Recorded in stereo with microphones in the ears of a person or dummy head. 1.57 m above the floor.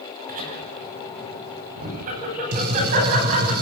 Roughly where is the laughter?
Right.